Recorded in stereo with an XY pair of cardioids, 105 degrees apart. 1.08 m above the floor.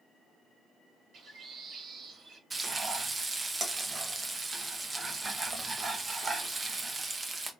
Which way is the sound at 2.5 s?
25° right.